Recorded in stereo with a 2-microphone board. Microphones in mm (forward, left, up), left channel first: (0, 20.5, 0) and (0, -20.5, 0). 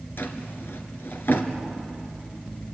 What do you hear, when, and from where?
0.2 s a drawer: 70° left (ahead or behind), 2 m